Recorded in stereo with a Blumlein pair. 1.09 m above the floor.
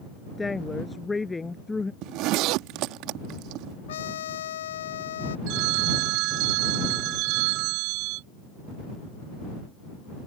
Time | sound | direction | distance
0.4 | a woman speaking | 10° left | ?
2.0 | a zipper | 40° right | ?
3.9 | a trumpet | 60° left | ?
5.5 | a phone ringing | 40° right | ?